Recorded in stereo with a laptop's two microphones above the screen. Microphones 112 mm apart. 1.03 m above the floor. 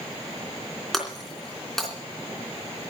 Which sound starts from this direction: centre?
Breaking glass, at 0.9 s.